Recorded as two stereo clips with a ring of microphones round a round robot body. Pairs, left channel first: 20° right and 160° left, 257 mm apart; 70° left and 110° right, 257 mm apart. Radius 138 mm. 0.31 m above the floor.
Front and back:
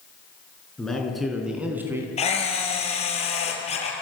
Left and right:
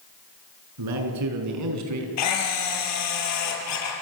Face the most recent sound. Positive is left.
turn(degrees=45)